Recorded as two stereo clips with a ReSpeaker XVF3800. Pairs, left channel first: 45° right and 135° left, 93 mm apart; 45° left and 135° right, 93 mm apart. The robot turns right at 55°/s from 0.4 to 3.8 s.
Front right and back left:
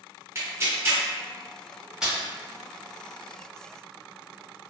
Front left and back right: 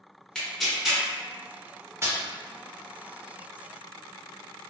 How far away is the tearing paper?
About 0.9 m.